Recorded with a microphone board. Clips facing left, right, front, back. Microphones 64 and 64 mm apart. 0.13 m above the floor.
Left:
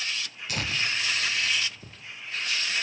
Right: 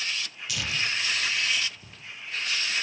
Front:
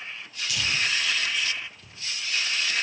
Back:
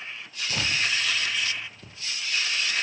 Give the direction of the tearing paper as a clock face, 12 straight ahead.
8 o'clock.